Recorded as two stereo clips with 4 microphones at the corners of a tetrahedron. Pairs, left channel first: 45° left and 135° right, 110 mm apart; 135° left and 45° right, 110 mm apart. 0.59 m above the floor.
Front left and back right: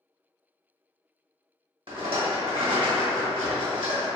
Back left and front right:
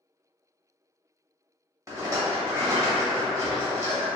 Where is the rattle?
105° right, 1.0 m.